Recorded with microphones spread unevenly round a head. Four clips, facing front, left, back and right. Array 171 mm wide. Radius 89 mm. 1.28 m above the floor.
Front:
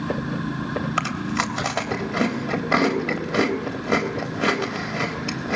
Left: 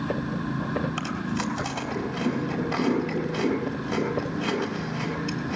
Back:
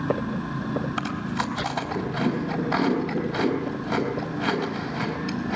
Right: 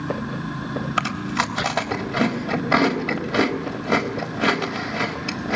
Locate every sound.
1.0 s chewing: 45° right, 3.5 m